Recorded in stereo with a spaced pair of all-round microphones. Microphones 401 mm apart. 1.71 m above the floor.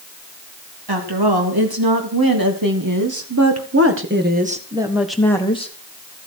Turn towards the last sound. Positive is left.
turn(degrees=15)  # may be behind; listen again after turning